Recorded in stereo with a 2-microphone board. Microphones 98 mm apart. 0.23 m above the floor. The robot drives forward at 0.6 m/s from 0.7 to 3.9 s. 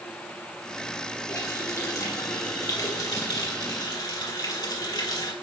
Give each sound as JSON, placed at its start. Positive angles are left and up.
{"t": 1.3, "sound": "a running tap", "side_deg": 30, "distance_m": 4.5}